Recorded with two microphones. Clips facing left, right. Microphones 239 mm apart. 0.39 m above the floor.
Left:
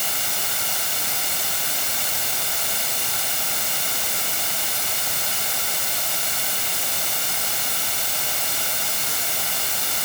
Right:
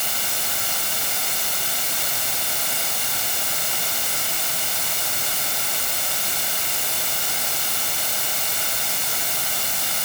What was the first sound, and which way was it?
Only background noise.